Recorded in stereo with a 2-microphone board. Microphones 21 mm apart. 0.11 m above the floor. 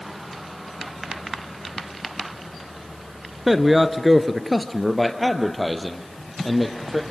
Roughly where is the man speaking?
Centre.